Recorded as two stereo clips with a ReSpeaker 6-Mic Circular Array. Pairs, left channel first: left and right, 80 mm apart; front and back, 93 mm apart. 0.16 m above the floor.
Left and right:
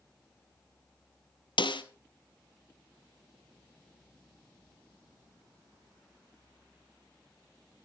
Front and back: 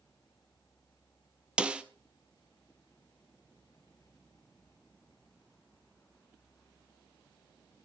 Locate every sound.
1.6 s a snare drum: 100° left, 0.9 m